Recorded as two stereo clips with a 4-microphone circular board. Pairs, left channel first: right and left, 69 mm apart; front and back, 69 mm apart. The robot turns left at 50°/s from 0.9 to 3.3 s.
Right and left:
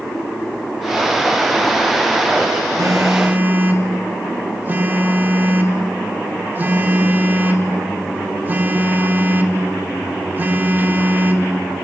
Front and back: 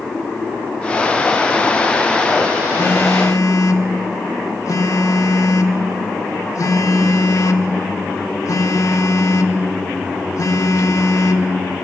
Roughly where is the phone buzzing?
Ahead left.